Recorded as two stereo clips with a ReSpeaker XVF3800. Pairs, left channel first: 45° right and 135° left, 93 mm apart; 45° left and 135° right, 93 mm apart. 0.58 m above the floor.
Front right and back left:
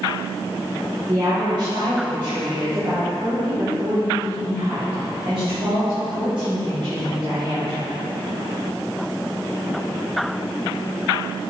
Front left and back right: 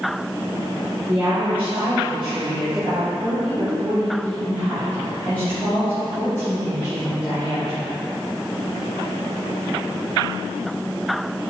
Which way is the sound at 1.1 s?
165° left.